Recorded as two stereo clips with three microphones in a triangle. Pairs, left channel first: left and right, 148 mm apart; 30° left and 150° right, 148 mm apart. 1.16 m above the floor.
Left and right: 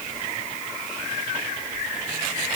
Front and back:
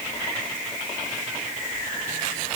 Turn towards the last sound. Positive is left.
No sound to turn to.